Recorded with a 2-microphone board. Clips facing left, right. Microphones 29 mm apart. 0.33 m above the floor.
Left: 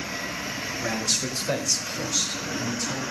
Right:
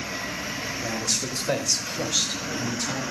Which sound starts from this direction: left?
A man speaking, at 0.8 s.